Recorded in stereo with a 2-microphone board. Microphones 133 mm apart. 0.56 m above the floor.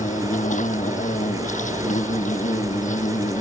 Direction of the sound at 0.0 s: 75° left (ahead or behind).